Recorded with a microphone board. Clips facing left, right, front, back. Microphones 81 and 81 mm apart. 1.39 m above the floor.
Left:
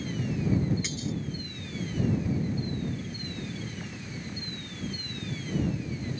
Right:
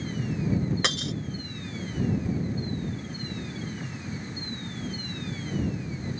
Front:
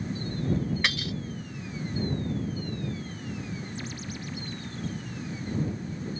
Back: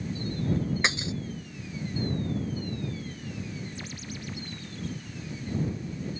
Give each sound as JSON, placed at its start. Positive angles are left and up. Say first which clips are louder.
{"t": 0.8, "sound": "breaking glass", "louder": "right 4 dB, back 1 dB", "azimuth_deg": -110}